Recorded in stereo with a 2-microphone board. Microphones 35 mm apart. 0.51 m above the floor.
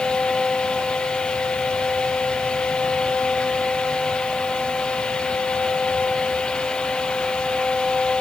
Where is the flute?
I don't hear a flute.